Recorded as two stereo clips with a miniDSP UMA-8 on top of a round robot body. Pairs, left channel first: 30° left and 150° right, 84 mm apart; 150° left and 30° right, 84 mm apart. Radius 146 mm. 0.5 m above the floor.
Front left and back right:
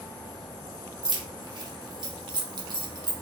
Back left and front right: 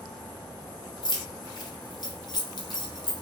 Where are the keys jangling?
Straight behind, 0.7 m.